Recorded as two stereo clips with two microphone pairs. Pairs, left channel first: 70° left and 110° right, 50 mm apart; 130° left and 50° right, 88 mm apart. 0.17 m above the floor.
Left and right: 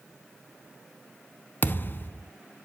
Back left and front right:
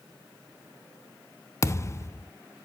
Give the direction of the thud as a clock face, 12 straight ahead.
9 o'clock.